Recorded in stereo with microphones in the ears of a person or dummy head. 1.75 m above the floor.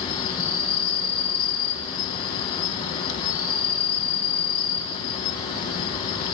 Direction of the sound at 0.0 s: 25° left (ahead or behind).